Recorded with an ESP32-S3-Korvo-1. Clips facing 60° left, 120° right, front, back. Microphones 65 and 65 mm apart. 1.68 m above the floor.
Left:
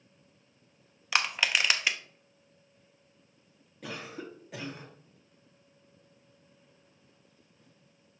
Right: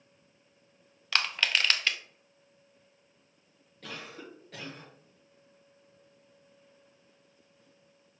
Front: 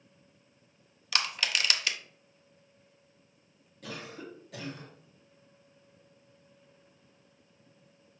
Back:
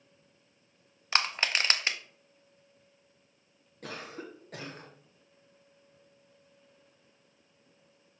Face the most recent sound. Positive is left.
turn(degrees=135)